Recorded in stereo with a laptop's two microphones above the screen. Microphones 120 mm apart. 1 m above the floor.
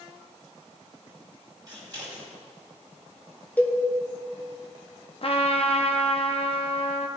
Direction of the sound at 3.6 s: 15° left (ahead or behind).